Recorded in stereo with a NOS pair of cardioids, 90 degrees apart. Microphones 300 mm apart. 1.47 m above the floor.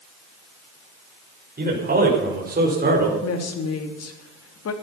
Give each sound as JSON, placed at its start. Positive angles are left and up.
{"t": 1.6, "sound": "a man speaking", "azimuth_deg": -30, "distance_m": 6.0}
{"t": 3.2, "sound": "a woman speaking", "azimuth_deg": 55, "distance_m": 3.0}